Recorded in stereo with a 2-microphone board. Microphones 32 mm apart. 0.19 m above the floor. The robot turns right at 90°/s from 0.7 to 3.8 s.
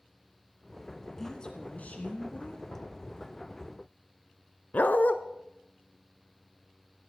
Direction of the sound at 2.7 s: 40° left (ahead or behind).